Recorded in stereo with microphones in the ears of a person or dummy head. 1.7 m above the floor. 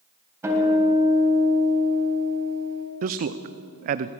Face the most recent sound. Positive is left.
turn(degrees=-40)  # may be behind; listen again after turning